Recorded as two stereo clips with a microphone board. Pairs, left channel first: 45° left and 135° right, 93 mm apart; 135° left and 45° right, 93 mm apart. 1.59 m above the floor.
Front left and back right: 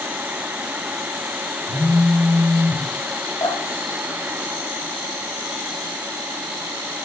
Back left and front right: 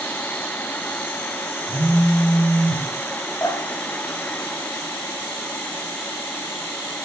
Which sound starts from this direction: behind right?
A phone buzzing, at 1.7 s.